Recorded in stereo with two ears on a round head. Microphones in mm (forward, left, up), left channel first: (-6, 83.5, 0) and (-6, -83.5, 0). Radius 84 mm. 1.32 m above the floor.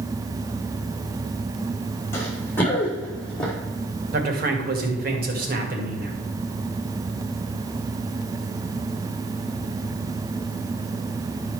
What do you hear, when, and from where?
2.1 s running footsteps: 15° left (ahead or behind), 3.5 m; by 3.5 s 5° left (ahead or behind), 3 m
4.1 s a man speaking: 50° right (ahead or behind), 2 m